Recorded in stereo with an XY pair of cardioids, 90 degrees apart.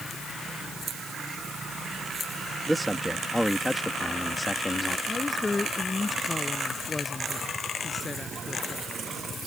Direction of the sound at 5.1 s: 25° left.